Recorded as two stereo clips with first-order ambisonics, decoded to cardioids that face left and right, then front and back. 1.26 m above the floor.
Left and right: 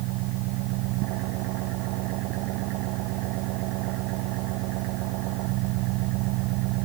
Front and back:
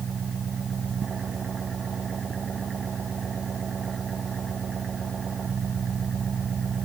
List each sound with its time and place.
0.0 s an engine running: 115° right